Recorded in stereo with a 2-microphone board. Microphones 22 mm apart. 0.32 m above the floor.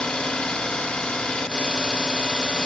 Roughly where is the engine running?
Left.